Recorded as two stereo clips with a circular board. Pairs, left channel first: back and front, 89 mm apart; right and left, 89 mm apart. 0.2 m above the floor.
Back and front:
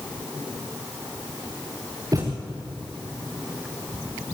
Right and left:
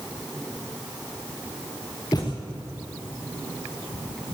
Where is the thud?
45° right, 5 m.